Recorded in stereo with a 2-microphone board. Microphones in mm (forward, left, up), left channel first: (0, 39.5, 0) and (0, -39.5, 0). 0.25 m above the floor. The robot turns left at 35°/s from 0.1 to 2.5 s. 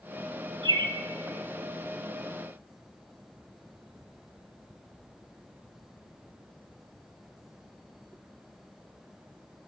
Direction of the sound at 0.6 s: 65° right (ahead or behind).